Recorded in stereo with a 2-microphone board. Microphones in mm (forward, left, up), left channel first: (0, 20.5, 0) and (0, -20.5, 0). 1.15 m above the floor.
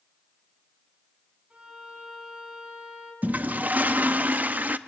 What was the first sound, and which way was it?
A violin, 25° right (ahead or behind).